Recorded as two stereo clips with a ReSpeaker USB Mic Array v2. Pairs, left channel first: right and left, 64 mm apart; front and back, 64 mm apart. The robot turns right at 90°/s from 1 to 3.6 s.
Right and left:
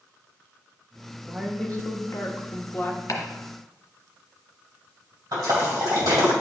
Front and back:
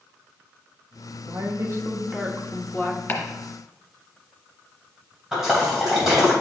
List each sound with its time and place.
1.3 s a woman speaking: 175° left, 1.1 m; by 3.0 s 30° right, 1.1 m
3.1 s chopping: 60° right, 1.8 m; by 3.2 s 50° right, 1.8 m
5.3 s a splash: 95° left, 2.5 m